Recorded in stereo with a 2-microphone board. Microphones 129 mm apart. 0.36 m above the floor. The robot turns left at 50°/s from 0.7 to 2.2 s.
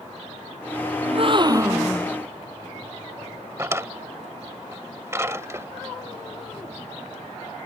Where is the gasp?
125° right; by 2.1 s straight behind.